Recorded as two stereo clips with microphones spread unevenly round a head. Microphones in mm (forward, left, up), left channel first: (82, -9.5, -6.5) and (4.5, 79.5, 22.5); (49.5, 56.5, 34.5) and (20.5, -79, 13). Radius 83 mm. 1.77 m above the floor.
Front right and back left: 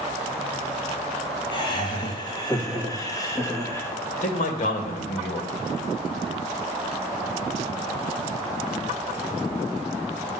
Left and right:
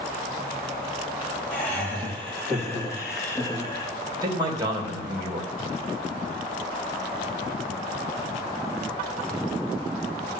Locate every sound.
1.5 s laughter: straight ahead, 3.5 m; by 3.9 s 20° left, 2 m
4.2 s a man speaking: 45° right, 2.5 m